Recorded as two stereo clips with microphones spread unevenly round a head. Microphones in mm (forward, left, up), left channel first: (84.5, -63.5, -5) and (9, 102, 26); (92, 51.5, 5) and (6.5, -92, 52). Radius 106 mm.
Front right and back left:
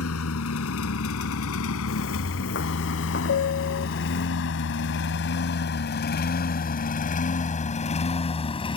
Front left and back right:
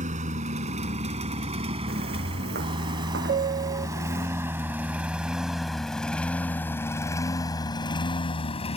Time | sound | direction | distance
0.0 | a lawn mower | 85° right | ?
1.9 | footsteps | 100° right | ?
3.3 | a piano | 100° right | ?